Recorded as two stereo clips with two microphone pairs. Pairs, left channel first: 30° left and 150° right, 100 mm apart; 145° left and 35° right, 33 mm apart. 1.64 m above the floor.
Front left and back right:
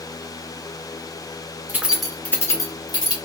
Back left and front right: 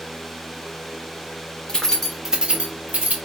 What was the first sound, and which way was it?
Keys jangling, 155° left.